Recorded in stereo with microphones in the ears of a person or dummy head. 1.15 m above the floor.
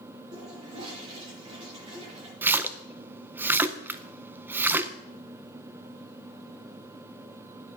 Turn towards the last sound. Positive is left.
turn(degrees=-10)  # may be behind; listen again after turning